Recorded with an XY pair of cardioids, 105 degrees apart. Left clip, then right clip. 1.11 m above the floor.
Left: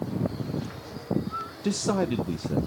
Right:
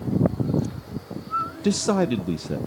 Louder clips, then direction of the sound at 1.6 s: Right 2 dB; 30° right.